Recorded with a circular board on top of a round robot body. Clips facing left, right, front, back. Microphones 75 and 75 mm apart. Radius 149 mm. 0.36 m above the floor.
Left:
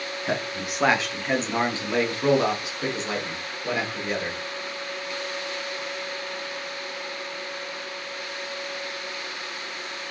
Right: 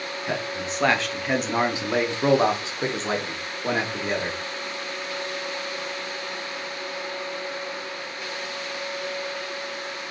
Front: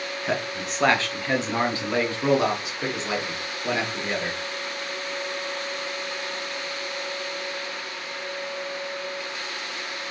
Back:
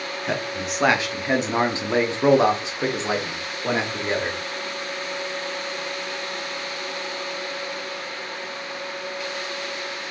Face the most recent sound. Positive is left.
turn(degrees=-125)